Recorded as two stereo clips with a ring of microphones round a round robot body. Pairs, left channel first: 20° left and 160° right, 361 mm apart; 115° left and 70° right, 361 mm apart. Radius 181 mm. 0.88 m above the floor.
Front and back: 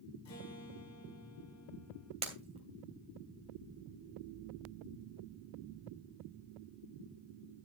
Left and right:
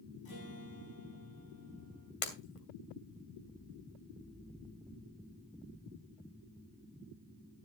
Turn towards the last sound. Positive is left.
turn(degrees=130)